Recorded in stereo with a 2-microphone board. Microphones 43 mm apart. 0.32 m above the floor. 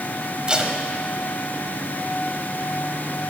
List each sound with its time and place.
0.5 s tape being pulled: 20° right (ahead or behind), 1.0 m